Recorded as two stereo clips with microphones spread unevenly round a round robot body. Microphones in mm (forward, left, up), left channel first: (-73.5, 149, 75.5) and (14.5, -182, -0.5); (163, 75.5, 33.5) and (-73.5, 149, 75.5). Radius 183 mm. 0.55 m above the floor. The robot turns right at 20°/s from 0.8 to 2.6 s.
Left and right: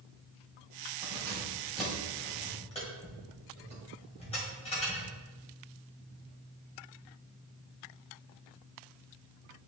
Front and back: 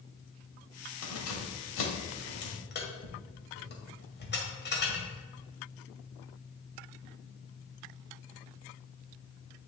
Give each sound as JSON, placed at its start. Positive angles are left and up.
{"t": 1.0, "sound": "keys jangling", "azimuth_deg": -5, "distance_m": 1.8}